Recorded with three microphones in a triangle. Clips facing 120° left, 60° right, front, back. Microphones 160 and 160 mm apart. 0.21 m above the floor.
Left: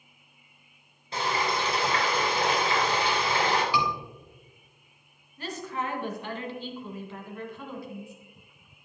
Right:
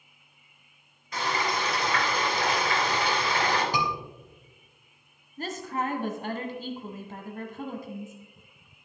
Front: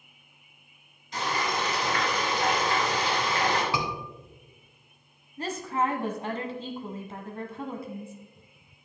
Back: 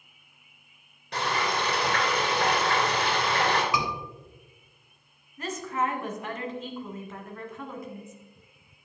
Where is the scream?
45° right, 2.5 m.